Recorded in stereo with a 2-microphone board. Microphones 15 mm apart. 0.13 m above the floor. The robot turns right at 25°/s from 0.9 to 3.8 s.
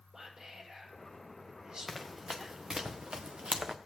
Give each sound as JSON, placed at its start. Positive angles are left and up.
{"t": 0.1, "sound": "whispering", "side_deg": -45, "distance_m": 5.5}
{"t": 1.9, "sound": "running footsteps", "side_deg": -5, "distance_m": 1.1}